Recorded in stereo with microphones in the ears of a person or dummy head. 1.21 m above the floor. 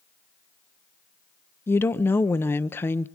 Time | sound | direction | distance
1.7 | a woman speaking | 10° left (ahead or behind) | 0.8 m